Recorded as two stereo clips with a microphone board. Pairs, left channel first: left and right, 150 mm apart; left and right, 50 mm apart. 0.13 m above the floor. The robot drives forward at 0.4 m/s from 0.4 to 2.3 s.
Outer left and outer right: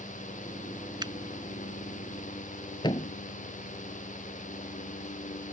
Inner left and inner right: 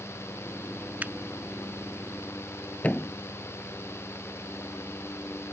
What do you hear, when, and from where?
1.0 s a finger snap: 30° right (ahead or behind)
2.8 s a thud: 30° left (ahead or behind)